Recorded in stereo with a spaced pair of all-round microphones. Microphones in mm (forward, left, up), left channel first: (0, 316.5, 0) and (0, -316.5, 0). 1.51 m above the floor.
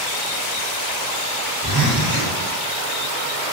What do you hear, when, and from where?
1.6 s a zipper: 35° right (ahead or behind), 4 m